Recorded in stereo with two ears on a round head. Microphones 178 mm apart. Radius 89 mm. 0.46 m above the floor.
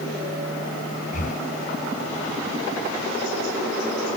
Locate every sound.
1.1 s breathing: 40° left (ahead or behind)